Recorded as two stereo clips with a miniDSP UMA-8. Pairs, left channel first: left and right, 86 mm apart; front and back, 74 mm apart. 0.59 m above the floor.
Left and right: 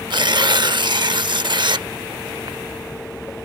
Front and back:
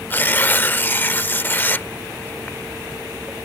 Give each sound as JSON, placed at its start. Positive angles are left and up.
{"t": 0.1, "sound": "tearing paper", "azimuth_deg": -65}